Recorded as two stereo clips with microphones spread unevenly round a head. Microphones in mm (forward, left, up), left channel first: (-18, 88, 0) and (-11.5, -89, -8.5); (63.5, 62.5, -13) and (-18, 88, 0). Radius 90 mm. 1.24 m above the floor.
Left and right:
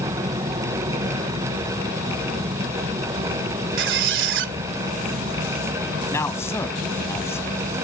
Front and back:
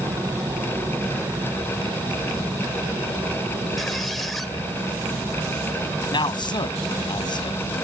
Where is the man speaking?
15° left.